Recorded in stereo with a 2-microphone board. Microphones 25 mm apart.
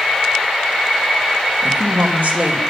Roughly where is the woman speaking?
Right.